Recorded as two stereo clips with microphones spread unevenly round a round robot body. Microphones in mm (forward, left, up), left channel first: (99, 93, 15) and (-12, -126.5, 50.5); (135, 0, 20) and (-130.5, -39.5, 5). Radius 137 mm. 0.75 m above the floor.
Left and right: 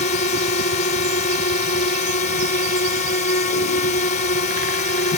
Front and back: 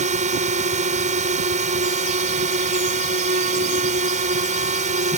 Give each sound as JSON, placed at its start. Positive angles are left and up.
{"t": 0.0, "sound": "a drone", "azimuth_deg": 125}